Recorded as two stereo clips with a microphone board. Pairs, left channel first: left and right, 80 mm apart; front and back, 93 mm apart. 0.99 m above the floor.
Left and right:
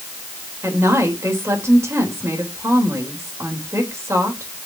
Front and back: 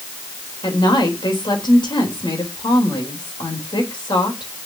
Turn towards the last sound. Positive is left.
turn(degrees=-30)